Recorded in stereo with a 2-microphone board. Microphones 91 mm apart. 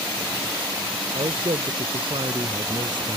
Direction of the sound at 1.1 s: 75° right (ahead or behind).